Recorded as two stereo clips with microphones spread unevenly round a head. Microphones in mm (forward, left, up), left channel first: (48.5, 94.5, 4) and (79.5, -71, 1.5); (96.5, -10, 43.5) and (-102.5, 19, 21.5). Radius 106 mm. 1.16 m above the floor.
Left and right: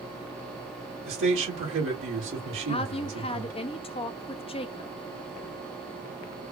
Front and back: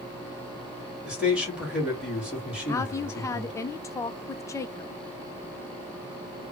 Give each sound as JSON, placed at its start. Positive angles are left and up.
{"t": 1.1, "sound": "a man speaking", "azimuth_deg": -105, "distance_m": 1.8}
{"t": 2.7, "sound": "a woman speaking", "azimuth_deg": 65, "distance_m": 0.5}